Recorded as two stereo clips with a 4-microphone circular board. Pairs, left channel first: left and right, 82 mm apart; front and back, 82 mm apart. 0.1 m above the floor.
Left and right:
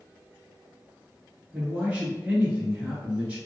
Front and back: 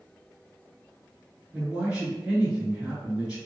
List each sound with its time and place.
1.5 s a man speaking: 130° right, 1.1 m